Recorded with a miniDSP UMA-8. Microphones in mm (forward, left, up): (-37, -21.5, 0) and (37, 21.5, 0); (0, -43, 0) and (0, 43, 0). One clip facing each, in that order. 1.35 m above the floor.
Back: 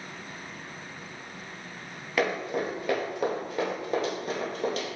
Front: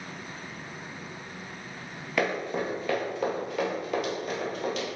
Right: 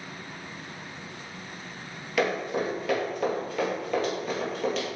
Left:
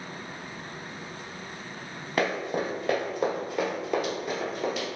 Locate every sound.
2.2 s running footsteps: 125° left, 1.9 m; by 4.9 s 175° left, 2.5 m